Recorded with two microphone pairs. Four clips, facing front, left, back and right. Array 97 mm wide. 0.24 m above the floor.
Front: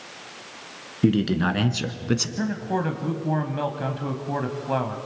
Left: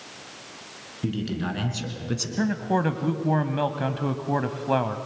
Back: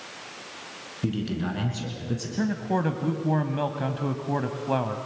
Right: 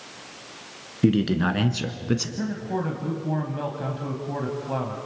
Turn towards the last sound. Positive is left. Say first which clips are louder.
# left 4 dB, even
turn(degrees=70)